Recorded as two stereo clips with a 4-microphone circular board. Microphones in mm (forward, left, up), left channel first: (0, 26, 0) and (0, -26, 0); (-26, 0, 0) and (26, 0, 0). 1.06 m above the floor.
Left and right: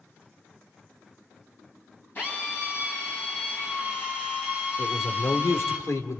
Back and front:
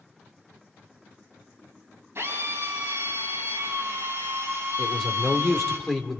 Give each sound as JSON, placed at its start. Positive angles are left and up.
{"t": 2.1, "sound": "a drill", "azimuth_deg": 40, "distance_m": 9.0}
{"t": 4.8, "sound": "a man speaking", "azimuth_deg": 95, "distance_m": 3.0}